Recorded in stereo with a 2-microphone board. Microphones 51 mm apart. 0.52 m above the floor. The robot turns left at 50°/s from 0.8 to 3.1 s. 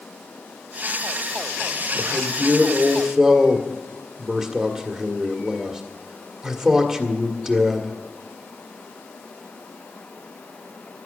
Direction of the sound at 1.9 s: 100° right.